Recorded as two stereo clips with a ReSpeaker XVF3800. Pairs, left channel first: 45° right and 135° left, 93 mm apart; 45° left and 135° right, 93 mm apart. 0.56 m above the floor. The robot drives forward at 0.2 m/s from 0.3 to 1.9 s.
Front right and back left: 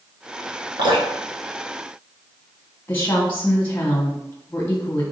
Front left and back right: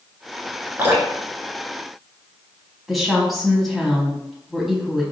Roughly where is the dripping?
Behind.